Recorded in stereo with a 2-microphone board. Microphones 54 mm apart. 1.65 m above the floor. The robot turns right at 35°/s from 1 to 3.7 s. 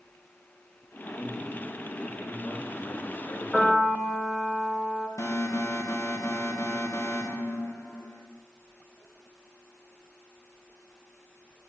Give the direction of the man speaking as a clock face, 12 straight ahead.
11 o'clock.